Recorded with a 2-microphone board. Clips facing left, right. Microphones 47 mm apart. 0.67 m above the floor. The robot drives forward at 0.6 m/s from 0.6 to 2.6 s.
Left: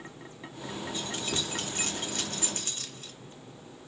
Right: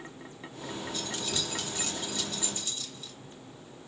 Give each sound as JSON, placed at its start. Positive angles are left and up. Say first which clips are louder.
{"t": 0.9, "sound": "keys jangling", "louder": "left 2 dB", "side_deg": 30, "distance_m": 1.0}